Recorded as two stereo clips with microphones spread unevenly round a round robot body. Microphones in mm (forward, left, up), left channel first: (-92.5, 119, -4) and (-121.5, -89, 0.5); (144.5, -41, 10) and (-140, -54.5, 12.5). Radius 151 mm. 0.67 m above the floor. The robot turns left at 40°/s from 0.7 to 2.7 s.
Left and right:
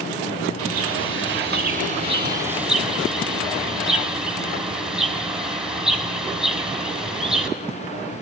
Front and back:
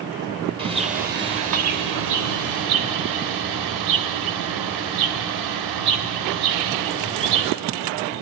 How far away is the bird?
About 4 m.